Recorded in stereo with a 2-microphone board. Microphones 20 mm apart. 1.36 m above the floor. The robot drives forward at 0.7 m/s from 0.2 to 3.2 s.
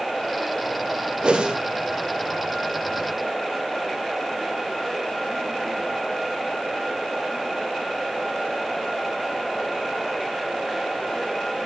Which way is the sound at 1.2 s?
65° right (ahead or behind).